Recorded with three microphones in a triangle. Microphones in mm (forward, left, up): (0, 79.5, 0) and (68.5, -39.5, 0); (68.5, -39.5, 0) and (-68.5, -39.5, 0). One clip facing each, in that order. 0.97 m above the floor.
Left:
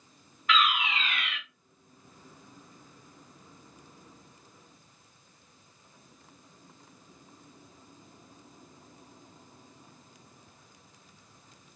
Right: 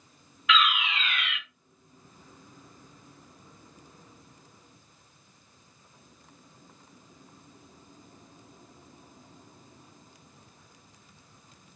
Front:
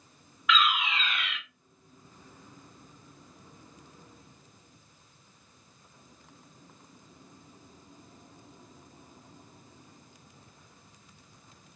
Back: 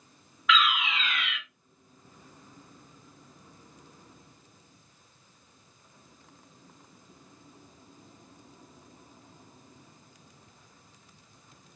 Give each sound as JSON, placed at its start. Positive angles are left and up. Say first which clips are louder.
{"t": 0.5, "sound": "a fire alarm", "louder": "right 1 dB, back 1 dB", "azimuth_deg": 85, "distance_m": 1.6}